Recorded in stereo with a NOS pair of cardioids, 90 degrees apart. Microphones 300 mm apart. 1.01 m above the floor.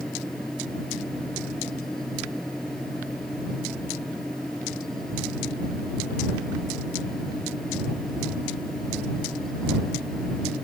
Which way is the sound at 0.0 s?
Straight ahead.